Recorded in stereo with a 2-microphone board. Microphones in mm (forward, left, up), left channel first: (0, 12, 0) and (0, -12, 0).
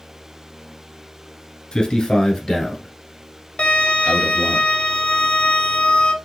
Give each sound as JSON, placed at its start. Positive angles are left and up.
{"t": 1.7, "sound": "a man speaking", "side_deg": 30, "distance_m": 1.4}
{"t": 3.6, "sound": "a violin", "side_deg": 65, "distance_m": 0.8}